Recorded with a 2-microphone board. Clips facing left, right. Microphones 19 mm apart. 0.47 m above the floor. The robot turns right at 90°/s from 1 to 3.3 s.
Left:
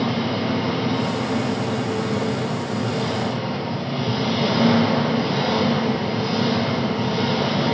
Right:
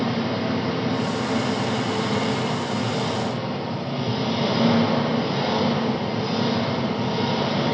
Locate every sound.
0.0 s an engine running: 165° left, 9.5 m; by 7.8 s 15° left, 9.5 m